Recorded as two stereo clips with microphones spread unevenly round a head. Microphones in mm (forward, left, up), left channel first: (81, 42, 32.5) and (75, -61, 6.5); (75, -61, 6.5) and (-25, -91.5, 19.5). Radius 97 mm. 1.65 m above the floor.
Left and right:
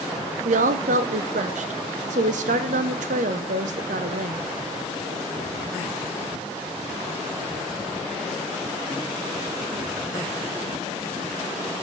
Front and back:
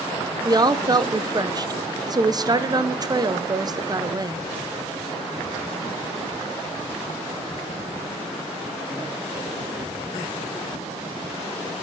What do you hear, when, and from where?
0.5 s a woman speaking: 120° right, 0.9 m